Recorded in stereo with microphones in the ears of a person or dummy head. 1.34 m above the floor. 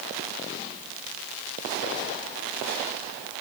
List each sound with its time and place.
Only background noise.